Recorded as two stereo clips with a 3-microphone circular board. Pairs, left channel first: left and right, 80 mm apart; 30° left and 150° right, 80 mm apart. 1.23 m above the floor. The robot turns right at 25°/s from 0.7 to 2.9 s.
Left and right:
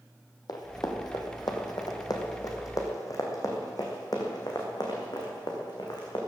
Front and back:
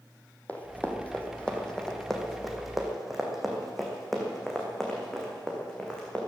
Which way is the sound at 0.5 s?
100° left.